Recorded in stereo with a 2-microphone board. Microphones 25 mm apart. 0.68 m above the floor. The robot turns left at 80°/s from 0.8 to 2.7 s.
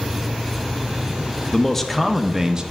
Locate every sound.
1.5 s a man speaking: 40° left, 0.7 m; by 2.6 s 45° right, 0.7 m